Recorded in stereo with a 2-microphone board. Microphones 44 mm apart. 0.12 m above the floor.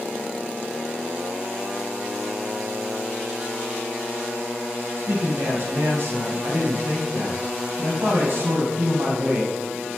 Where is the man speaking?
55° right (ahead or behind), 4 m.